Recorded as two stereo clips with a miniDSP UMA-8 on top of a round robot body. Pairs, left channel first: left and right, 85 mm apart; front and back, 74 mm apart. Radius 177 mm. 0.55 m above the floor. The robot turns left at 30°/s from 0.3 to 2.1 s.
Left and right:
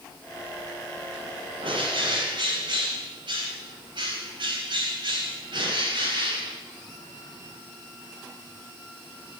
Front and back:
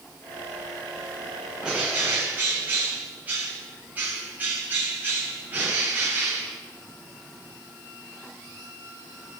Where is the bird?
100° right, 4 m; by 6.6 s 115° right, 4 m.